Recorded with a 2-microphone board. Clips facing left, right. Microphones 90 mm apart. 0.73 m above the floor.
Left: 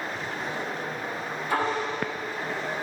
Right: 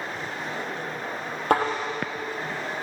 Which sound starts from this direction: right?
A thud, at 1.5 s.